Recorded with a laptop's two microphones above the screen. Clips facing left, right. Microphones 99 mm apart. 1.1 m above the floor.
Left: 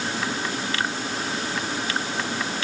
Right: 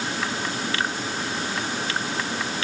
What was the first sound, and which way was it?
Only background noise.